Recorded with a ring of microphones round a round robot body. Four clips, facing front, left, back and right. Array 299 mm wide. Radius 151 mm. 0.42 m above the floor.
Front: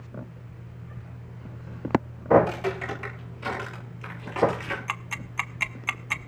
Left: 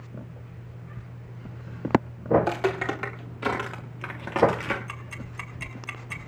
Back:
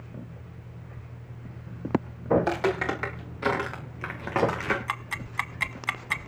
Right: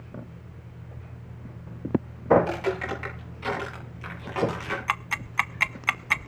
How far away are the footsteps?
About 8.5 m.